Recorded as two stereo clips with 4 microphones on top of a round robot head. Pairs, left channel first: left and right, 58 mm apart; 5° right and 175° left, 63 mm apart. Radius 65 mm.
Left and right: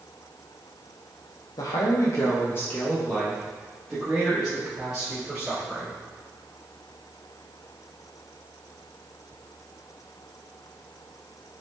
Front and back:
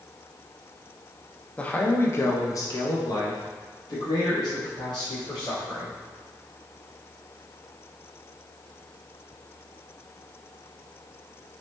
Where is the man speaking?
70° left, 0.7 m; by 6.0 s 10° right, 2.5 m.